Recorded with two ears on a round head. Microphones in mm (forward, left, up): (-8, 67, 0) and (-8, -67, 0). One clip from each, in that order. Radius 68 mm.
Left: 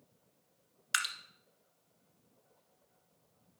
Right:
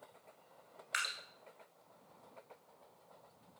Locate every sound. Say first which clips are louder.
0.9 s dripping: left 4 dB; 70° left (ahead or behind), 1.3 m